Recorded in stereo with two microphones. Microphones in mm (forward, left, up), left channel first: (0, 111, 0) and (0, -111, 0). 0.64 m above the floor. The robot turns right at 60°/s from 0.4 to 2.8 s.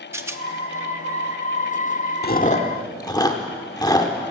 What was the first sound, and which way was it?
A rattle, 10° right (ahead or behind).